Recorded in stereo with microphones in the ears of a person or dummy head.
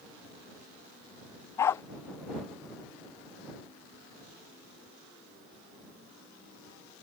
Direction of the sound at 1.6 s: 15° left (ahead or behind).